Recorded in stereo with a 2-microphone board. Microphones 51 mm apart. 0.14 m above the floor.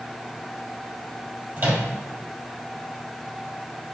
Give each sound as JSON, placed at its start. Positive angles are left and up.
{"t": 1.6, "sound": "a microwave", "side_deg": -45, "distance_m": 3.5}